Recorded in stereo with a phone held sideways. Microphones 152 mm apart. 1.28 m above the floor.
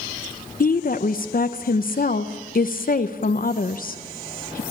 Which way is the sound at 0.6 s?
70° left (ahead or behind).